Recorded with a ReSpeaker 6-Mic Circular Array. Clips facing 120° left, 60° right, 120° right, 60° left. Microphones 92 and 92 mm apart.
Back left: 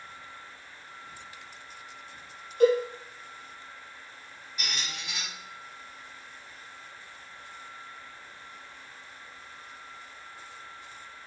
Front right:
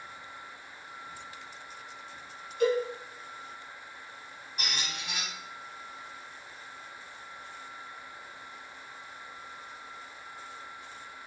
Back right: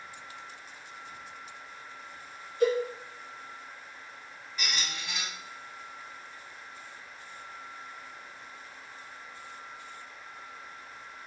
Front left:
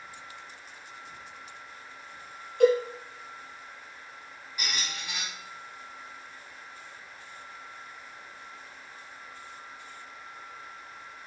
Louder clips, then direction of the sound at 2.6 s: Back left 5 dB, front left 5 dB; 75° left.